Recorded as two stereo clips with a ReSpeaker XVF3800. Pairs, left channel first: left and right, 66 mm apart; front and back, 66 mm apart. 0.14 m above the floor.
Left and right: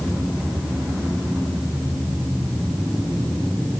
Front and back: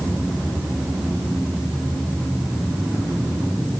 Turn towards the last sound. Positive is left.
No sound to turn to.